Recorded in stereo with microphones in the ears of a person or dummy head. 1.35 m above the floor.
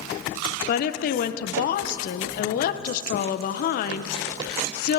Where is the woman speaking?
55° left (ahead or behind), 0.7 m.